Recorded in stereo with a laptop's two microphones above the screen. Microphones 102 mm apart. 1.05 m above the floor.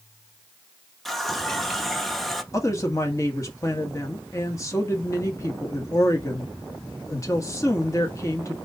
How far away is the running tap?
About 0.8 m.